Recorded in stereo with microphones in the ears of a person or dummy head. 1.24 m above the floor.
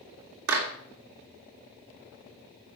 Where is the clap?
65° right (ahead or behind), 2.5 m.